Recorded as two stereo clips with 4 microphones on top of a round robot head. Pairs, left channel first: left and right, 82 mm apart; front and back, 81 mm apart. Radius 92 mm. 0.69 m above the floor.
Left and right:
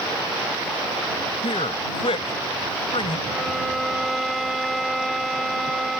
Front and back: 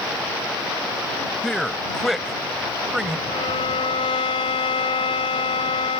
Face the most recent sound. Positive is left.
turn(degrees=0)